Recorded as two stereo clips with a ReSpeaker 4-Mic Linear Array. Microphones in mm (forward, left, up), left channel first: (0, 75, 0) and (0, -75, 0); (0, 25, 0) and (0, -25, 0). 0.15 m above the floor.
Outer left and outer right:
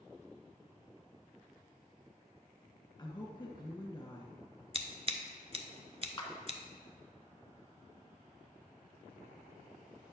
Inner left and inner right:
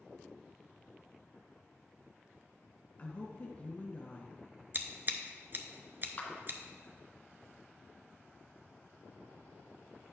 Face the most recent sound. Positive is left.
turn(degrees=30)  # may be behind; listen again after turning